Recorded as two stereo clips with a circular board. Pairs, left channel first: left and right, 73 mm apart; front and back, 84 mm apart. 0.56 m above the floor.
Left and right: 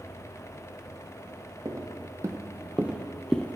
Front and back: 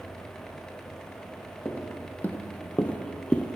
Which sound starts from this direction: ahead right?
Footsteps, at 1.6 s.